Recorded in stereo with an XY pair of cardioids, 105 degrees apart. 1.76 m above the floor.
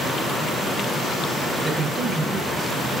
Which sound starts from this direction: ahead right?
A man speaking, at 1.6 s.